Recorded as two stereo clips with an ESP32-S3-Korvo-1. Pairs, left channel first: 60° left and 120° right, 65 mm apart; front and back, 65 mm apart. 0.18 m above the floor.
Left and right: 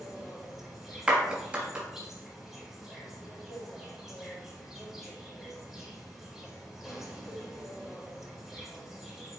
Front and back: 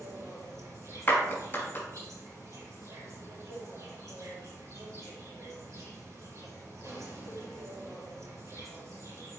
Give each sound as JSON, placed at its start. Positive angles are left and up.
{"t": 0.0, "sound": "an insect", "azimuth_deg": 150, "distance_m": 4.0}
{"t": 1.1, "sound": "a clap", "azimuth_deg": -55, "distance_m": 3.0}